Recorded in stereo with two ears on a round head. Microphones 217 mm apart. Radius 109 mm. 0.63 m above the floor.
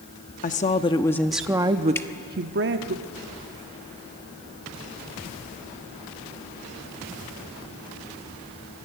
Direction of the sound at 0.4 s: 35° left (ahead or behind).